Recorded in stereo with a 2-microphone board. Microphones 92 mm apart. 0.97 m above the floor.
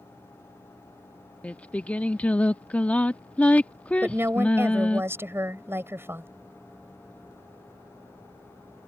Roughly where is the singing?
Centre.